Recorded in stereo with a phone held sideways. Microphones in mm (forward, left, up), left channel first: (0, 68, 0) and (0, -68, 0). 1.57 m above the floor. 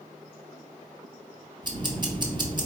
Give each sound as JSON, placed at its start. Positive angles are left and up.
{"t": 1.6, "sound": "ticking", "side_deg": -30, "distance_m": 0.9}